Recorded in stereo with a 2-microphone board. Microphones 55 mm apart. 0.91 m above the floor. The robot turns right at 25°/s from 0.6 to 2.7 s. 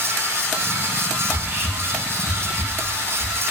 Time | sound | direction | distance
1.2 | whispering | 25° right (ahead or behind) | 0.7 m